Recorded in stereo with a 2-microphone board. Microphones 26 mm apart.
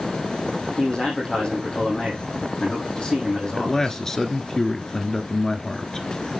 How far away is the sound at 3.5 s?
About 1.4 m.